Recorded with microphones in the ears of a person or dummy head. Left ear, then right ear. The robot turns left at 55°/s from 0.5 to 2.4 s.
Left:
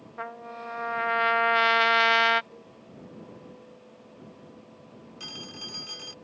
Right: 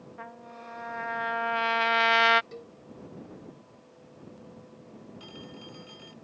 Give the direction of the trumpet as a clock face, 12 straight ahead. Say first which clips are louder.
Left 7 dB; 9 o'clock.